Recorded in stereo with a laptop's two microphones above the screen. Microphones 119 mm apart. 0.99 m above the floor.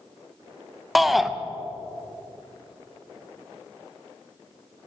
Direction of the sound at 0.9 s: Centre (ahead or behind).